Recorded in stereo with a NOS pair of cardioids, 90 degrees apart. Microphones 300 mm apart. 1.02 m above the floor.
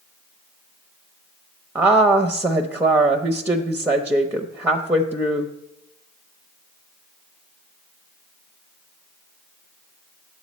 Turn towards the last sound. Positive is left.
turn(degrees=-5)